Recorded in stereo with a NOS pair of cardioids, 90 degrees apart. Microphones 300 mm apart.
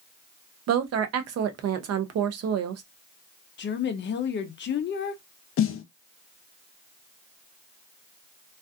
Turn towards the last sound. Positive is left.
turn(degrees=45)